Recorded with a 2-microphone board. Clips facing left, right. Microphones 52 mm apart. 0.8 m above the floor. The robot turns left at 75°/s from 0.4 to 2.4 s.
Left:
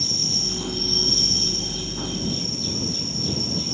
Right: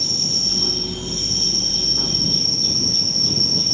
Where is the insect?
30° left; by 3.8 s 120° right.